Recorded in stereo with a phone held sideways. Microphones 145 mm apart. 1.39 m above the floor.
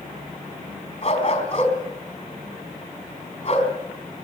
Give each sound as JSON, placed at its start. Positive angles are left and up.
{"t": 1.0, "sound": "a dog barking", "side_deg": 45, "distance_m": 4.0}